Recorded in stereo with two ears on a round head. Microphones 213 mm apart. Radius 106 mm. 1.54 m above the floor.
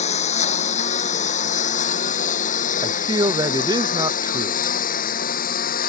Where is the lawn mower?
30° left (ahead or behind); by 5.9 s 40° left (ahead or behind).